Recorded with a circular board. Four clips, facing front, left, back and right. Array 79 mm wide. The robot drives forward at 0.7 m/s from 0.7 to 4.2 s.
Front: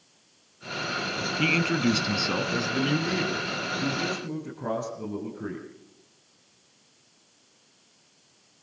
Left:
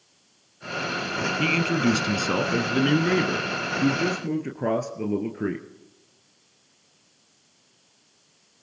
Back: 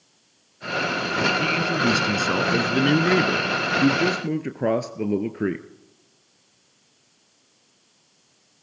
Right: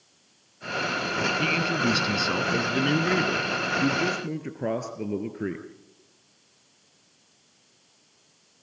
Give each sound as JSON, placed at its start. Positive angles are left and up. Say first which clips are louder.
{"t": 1.4, "sound": "a man speaking", "louder": "left 6 dB, back 3 dB", "azimuth_deg": 35, "distance_m": 1.1}